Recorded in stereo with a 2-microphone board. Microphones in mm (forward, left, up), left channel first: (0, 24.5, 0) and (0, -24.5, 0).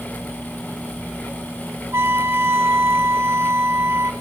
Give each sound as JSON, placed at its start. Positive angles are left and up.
{"t": 1.9, "sound": "a trumpet", "side_deg": -60, "distance_m": 1.9}